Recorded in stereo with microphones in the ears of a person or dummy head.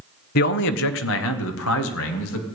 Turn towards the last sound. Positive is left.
turn(degrees=85)